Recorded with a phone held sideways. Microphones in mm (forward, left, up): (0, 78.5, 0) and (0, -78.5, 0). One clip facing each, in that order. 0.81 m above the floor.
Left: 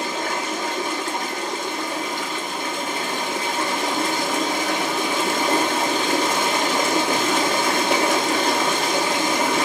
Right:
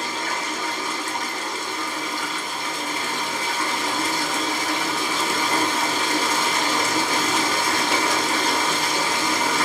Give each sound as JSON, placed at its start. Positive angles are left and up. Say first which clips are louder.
{"t": 0.0, "sound": "running water", "louder": "left 3 dB", "side_deg": 60, "distance_m": 0.9}